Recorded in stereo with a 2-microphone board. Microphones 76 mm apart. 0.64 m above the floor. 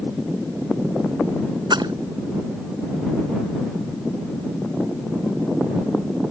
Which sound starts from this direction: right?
A splash, at 1.7 s.